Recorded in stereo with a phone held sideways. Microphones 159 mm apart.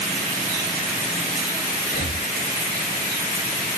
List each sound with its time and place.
1.9 s breathing: 75° left (ahead or behind), 1.3 m